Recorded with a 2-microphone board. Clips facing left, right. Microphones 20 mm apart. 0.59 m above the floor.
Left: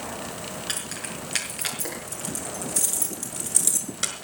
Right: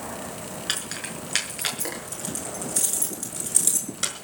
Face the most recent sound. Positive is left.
turn(degrees=5)  # may be behind; listen again after turning